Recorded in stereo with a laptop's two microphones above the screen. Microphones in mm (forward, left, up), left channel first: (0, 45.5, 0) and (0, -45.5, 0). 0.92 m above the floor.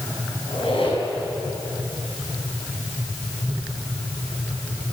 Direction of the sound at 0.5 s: 65° left (ahead or behind).